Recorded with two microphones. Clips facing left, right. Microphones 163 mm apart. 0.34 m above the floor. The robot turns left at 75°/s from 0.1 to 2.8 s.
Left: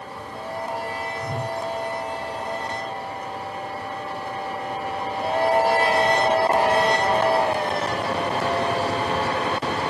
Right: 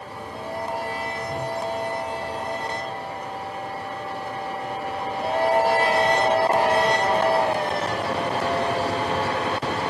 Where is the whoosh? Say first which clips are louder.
Even; 30° left (ahead or behind), 4.5 m; by 1.6 s 60° left (ahead or behind), 4.5 m.